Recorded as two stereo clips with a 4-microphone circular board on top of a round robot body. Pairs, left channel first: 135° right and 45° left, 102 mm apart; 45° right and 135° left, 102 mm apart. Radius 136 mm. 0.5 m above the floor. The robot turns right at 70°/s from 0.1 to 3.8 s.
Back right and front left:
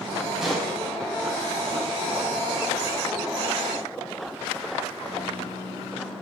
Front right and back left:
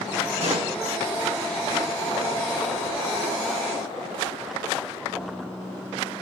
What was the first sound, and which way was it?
A pop, 130° left.